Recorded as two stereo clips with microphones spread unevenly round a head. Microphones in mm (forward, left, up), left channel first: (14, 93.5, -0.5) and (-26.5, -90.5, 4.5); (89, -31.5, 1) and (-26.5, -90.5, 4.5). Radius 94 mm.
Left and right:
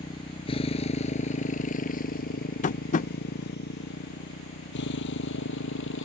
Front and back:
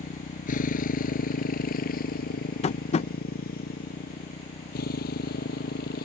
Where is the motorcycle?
10° left; by 6.0 s 50° left.